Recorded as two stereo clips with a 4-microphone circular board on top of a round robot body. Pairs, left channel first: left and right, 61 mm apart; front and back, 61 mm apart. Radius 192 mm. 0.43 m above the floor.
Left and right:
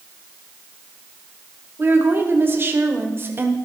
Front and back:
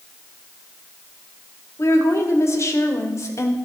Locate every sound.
1.8 s a woman speaking: 40° right, 2 m